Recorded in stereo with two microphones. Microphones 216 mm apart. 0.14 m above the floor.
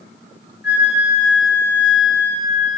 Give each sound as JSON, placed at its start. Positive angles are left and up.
{"t": 0.6, "sound": "a flute", "side_deg": 55, "distance_m": 2.5}